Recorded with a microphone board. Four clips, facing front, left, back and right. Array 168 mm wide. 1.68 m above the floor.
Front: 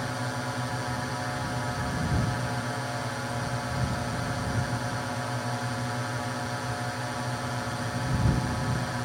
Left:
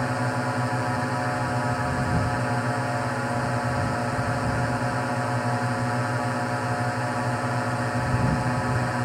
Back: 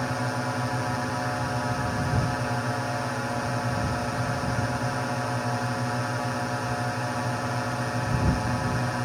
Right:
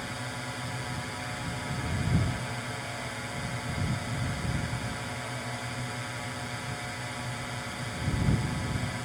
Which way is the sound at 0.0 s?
110° left.